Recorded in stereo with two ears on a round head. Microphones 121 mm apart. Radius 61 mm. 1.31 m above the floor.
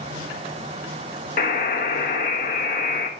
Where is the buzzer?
60° left (ahead or behind), 1.2 m.